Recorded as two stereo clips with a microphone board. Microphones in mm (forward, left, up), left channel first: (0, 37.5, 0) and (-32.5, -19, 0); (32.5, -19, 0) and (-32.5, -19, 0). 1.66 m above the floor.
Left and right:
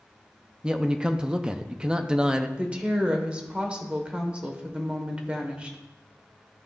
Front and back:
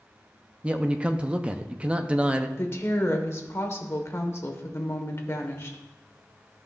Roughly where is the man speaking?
Behind.